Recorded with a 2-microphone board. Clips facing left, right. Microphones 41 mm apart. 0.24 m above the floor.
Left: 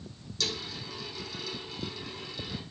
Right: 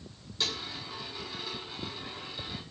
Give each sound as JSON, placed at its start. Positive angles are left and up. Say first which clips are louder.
{"t": 0.4, "sound": "a dropped coin", "louder": "even", "side_deg": -30, "distance_m": 5.0}